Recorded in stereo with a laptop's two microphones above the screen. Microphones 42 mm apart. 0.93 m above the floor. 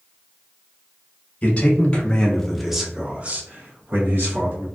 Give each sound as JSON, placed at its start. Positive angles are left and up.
{"t": 1.4, "sound": "a man speaking", "side_deg": 35, "distance_m": 1.0}